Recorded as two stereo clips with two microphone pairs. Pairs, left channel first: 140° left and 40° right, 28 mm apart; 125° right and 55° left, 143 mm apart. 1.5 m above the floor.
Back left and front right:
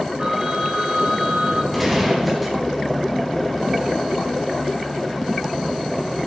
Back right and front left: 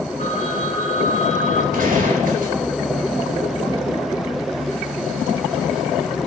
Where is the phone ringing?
95° right, 2.5 m.